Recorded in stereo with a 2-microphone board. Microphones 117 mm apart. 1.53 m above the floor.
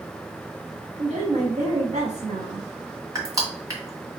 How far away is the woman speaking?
About 1.1 m.